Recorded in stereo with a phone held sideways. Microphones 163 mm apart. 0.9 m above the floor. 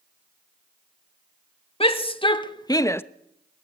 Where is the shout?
35° left (ahead or behind), 1.8 m; by 3.0 s 15° left (ahead or behind), 0.7 m.